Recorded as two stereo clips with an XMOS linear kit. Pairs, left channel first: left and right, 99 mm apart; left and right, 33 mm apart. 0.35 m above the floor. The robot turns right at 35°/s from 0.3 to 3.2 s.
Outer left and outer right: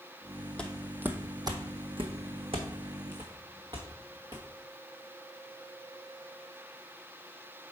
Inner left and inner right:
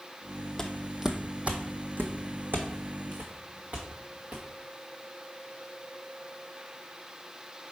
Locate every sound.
0.6 s footsteps: 10° left (ahead or behind), 0.7 m; by 4.4 s 45° right (ahead or behind), 2 m